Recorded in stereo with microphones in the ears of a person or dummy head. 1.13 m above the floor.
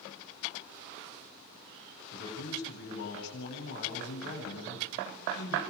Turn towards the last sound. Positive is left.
turn(degrees=70)  # may be behind; listen again after turning